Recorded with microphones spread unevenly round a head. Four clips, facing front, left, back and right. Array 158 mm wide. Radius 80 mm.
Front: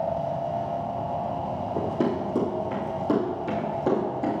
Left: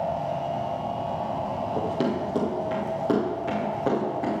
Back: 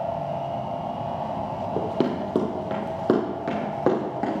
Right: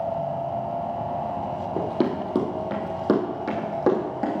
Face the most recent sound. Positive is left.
turn(degrees=-155)